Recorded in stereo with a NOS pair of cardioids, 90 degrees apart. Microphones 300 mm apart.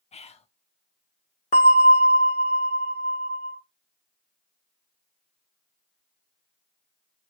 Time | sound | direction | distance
0.1 | whispering | 20° left | 0.5 m
1.5 | a bell | 25° left | 1.0 m